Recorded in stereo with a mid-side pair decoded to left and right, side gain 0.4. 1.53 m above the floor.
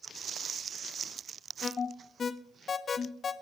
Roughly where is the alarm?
Ahead left.